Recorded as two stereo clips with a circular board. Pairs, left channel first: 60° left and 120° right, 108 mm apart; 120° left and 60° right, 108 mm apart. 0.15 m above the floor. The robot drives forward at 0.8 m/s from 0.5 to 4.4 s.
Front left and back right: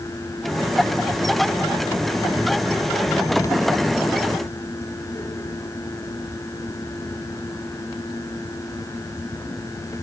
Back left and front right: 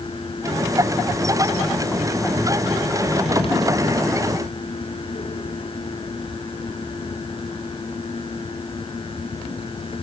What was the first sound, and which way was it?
Only background noise.